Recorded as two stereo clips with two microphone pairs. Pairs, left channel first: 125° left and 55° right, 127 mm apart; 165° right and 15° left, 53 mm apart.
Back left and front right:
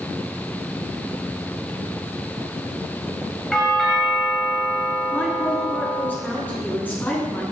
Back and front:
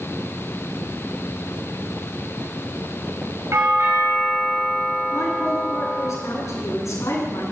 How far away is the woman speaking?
About 9.5 m.